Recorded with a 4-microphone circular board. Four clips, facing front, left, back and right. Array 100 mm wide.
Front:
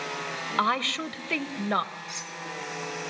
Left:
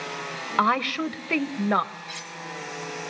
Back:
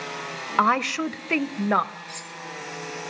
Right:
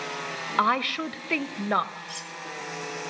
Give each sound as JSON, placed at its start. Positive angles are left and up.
{"t": 0.6, "sound": "a woman speaking", "azimuth_deg": 160, "distance_m": 0.9}
{"t": 2.1, "sound": "cutlery clinking", "azimuth_deg": 80, "distance_m": 1.1}